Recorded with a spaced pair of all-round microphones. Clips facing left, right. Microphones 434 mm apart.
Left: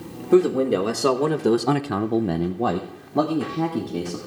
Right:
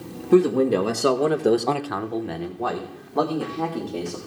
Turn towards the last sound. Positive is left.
turn(degrees=35)  # may be behind; listen again after turning